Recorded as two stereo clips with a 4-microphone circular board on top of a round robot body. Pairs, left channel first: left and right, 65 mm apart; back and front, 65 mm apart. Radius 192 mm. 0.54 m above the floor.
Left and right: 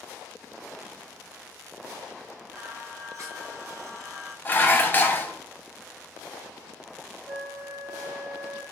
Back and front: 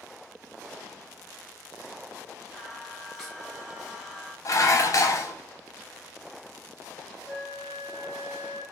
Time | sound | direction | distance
2.5 | singing | 85° right | 1.4 m
4.5 | dishes clattering | 150° left | 0.7 m
7.3 | a flute | 100° right | 1.7 m